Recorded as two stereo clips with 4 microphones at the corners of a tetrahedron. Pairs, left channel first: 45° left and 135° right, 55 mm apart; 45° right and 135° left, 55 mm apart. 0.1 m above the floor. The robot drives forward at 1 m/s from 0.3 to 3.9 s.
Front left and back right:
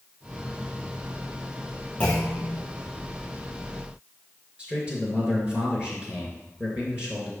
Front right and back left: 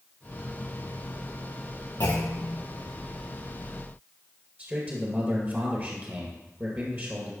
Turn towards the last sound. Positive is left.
turn(degrees=165)